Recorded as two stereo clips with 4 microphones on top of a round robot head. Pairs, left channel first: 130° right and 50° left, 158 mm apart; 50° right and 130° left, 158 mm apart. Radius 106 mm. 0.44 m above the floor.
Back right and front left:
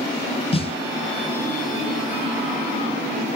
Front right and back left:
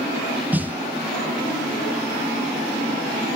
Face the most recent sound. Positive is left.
turn(degrees=-155)